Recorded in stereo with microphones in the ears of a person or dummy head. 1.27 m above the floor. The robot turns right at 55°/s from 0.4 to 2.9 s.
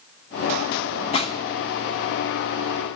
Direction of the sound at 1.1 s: 40° left (ahead or behind).